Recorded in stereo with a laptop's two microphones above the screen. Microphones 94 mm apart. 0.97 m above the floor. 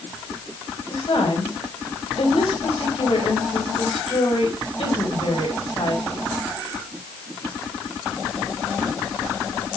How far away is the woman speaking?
About 3.5 m.